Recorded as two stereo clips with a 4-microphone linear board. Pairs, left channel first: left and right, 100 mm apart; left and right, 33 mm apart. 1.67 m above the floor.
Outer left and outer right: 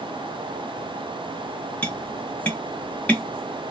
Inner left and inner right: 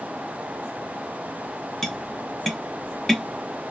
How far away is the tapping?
About 0.9 m.